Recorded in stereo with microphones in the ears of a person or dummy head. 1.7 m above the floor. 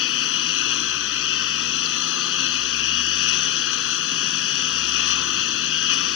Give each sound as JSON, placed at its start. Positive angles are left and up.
{"t": 0.0, "sound": "a lawn mower", "side_deg": 70}